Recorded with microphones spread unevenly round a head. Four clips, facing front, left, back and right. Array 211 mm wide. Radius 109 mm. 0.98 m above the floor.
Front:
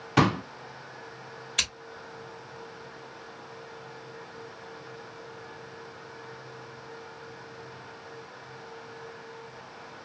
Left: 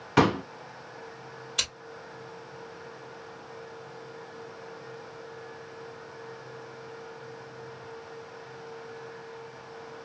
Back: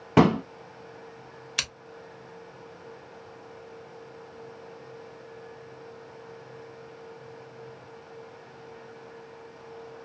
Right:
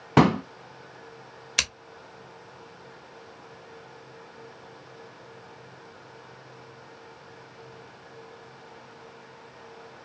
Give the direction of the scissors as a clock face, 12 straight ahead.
3 o'clock.